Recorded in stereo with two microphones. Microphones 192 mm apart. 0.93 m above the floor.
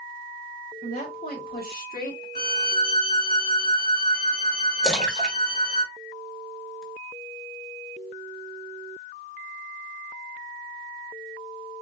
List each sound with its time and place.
0.8 s a woman speaking: 50° left (ahead or behind), 2.5 m
2.4 s a violin: 50° left (ahead or behind), 2 m
4.8 s a splash: centre (ahead or behind), 1.3 m